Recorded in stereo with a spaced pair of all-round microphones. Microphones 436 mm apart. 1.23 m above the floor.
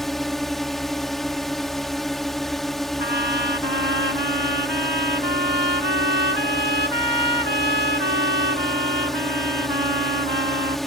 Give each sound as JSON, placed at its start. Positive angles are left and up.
{"t": 0.0, "sound": "a drone", "side_deg": 0}
{"t": 3.0, "sound": "a trumpet", "side_deg": -65}